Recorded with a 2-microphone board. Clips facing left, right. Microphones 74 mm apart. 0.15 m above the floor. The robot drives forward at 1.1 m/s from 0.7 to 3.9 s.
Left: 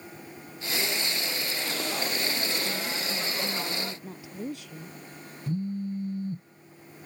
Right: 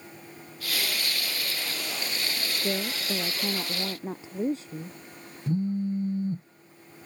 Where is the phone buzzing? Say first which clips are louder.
Right 4 dB; 25° right (ahead or behind).